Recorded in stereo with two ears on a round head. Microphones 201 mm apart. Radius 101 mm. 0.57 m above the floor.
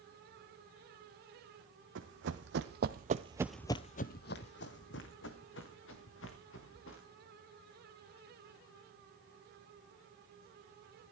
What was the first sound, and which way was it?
Running footsteps, 60° right (ahead or behind).